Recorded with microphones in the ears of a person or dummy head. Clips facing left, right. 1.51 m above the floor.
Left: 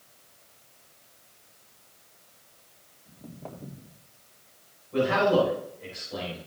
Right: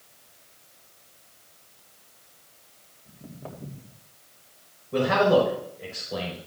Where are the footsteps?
5° right (ahead or behind), 4 m.